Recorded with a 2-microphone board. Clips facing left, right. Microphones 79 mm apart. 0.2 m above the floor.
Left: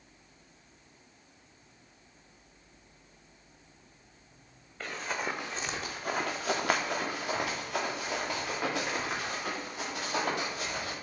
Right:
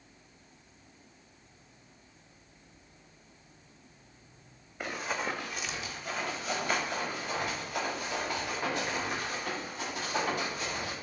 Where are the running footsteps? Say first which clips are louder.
Right 1 dB; 15° right (ahead or behind), 0.6 m; by 10.9 s 80° left, 3 m.